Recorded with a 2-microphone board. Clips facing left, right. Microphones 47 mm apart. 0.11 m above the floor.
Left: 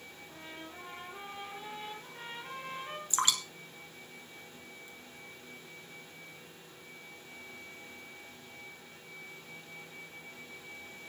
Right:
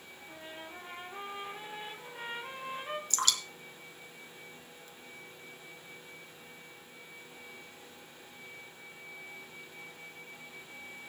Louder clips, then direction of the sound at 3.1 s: Left 3 dB; 25° left (ahead or behind).